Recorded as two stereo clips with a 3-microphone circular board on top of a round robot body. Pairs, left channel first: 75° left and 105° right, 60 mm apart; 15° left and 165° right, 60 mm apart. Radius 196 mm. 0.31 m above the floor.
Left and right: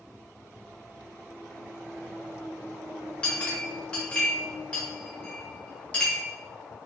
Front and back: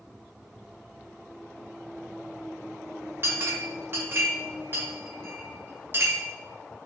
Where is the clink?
145° left, 1.5 m.